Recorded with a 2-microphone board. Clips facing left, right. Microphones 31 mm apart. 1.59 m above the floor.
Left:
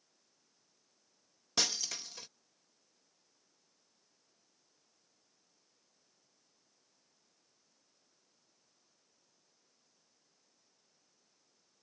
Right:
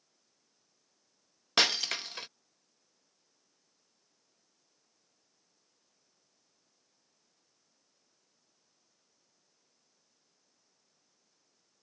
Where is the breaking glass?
55° right (ahead or behind).